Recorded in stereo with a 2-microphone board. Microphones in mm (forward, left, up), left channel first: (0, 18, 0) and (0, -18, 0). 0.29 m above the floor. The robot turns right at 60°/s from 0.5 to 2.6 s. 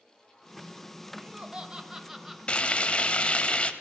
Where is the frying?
30° left (ahead or behind), 0.8 m.